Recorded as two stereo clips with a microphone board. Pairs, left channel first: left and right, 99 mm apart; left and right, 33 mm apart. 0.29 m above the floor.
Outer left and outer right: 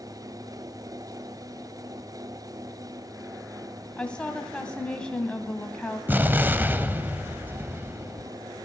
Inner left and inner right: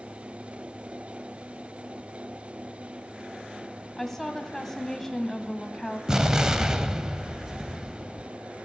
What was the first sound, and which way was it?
A woman speaking, 10° left (ahead or behind).